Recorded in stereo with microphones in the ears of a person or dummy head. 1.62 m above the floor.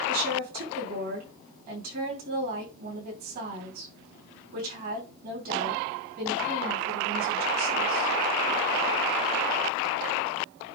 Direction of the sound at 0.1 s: 45° right (ahead or behind).